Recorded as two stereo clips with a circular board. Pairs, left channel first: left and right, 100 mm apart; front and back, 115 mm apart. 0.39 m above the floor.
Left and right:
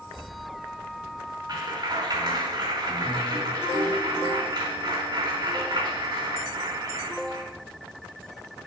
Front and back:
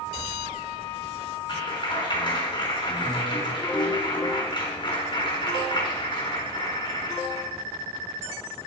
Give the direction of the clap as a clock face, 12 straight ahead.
2 o'clock.